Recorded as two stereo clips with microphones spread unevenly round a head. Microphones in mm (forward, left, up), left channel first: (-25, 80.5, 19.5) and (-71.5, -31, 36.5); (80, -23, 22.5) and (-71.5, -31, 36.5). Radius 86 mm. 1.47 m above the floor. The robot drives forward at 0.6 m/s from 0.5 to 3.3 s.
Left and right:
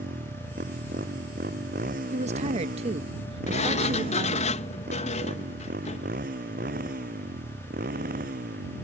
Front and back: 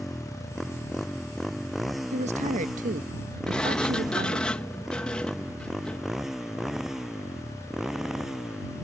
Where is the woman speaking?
130° right; by 4.5 s 145° right.